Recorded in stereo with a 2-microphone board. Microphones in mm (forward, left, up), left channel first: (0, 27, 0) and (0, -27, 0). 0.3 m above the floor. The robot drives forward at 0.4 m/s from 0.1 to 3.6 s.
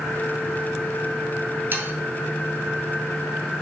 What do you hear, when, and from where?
1.7 s sawing: 40° right (ahead or behind), 2 m